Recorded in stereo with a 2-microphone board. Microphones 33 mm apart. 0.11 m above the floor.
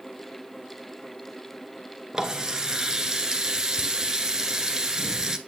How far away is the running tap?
About 1.0 m.